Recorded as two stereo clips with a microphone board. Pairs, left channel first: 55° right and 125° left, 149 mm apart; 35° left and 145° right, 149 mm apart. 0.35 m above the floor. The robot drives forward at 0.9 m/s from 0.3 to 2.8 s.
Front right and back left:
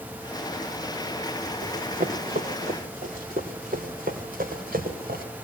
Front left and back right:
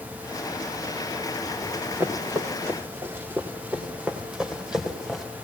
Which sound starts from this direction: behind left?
Running footsteps, at 1.6 s.